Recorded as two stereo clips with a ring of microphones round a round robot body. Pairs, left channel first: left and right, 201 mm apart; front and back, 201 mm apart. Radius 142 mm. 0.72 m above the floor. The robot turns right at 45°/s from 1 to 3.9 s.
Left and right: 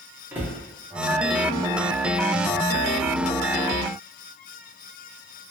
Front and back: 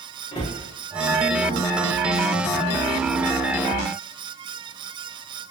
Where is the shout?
No shout in this recording.